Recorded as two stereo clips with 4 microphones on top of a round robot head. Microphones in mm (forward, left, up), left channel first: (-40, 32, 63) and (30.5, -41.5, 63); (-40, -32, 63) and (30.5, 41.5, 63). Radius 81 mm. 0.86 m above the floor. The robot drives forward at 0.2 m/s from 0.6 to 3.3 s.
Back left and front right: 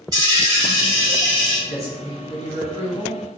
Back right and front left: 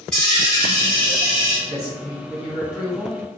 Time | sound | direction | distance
0.1 | a dropped coin | 60° right | 0.8 m
1.7 | a man speaking | 145° left | 1.3 m